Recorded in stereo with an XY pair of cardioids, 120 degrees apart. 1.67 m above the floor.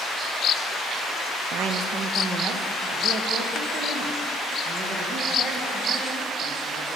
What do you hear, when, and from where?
1.5 s a woman speaking: 70° right, 0.7 m; by 6.9 s 45° right, 3.5 m